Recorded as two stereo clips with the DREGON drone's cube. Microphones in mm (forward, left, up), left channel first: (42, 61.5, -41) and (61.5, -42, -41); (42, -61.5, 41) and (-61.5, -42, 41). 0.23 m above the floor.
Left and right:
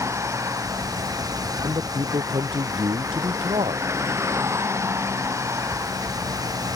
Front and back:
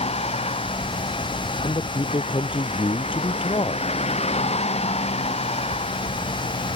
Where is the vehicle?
15° right.